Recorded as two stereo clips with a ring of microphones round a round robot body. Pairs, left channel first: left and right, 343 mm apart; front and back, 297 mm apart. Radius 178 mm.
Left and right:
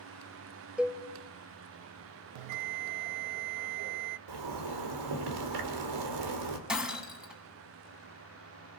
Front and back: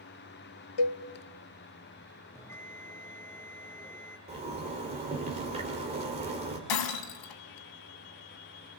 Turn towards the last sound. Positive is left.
turn(degrees=0)